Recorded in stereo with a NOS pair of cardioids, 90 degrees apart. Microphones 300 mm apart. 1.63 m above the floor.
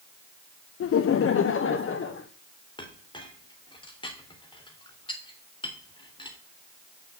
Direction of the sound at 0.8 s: 55° left.